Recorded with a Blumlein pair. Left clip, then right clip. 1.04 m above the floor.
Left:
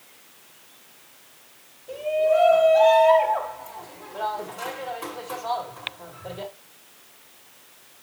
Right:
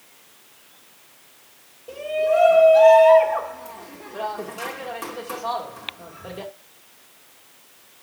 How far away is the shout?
About 2.5 m.